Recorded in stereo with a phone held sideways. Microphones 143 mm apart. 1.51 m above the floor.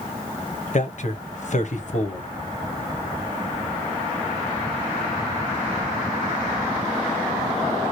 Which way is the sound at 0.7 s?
55° left (ahead or behind).